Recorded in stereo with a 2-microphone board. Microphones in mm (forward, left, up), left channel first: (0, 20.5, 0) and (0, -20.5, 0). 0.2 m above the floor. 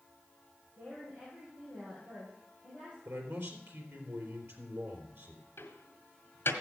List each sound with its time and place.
0.8 s a woman speaking: 40° right (ahead or behind), 6 m
3.0 s a man speaking: 65° right (ahead or behind), 3.5 m
5.6 s a door slam: 60° left (ahead or behind), 1.8 m